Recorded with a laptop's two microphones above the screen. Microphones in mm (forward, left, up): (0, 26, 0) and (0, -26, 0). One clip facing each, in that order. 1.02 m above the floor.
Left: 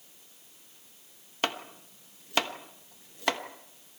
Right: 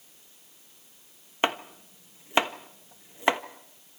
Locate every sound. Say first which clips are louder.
1.4 s chopping: right 5 dB; 25° right (ahead or behind), 1.2 m